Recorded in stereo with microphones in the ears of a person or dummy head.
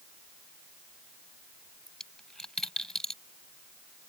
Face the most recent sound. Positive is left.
turn(degrees=0)  # may be behind; listen again after turning